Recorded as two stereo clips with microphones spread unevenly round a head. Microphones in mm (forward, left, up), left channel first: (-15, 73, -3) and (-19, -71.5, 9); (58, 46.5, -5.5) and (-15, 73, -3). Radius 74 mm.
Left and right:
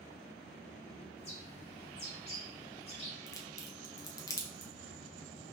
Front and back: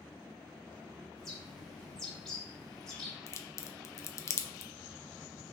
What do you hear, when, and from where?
1.2 s a bird: 65° left, 1.2 m
3.3 s a crack: 25° left, 0.5 m